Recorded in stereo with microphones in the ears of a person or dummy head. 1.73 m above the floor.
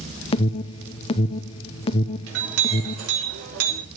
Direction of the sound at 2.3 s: 80° right.